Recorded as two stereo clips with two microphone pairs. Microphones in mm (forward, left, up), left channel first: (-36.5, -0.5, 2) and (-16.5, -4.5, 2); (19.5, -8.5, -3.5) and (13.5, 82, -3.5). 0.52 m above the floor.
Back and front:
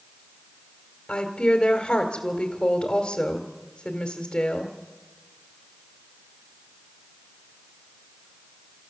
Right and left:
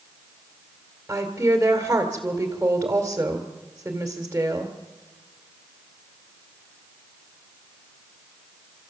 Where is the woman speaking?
160° left, 2 m.